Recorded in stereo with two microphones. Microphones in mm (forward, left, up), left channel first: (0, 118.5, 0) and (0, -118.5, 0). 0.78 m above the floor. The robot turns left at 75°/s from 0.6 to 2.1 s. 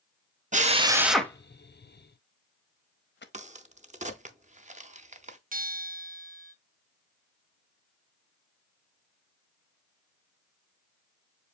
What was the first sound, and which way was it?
A drill, 30° right (ahead or behind).